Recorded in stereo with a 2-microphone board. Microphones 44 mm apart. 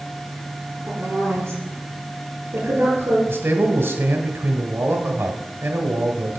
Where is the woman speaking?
70° right (ahead or behind), 3.5 m.